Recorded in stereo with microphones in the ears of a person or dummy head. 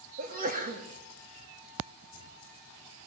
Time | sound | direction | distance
0.2 | a sneeze | 45° right (ahead or behind) | 3 m